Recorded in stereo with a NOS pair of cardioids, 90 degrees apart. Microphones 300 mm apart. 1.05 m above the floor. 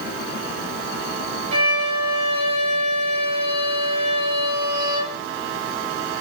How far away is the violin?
About 0.7 m.